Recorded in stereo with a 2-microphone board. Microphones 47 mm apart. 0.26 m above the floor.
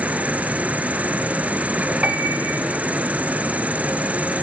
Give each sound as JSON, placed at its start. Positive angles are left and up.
{"t": 0.0, "sound": "an insect", "side_deg": -35, "distance_m": 0.8}
{"t": 2.0, "sound": "a piano", "side_deg": -30, "distance_m": 1.3}